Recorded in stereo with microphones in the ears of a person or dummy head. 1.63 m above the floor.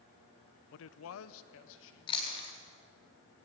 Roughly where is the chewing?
Left.